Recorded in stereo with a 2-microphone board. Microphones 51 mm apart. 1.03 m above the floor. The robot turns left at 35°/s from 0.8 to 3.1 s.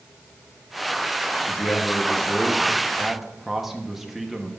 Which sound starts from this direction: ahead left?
A man speaking, at 1.5 s.